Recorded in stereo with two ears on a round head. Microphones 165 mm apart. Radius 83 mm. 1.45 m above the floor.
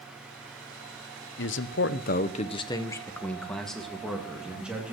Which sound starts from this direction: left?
A man speaking, at 1.4 s.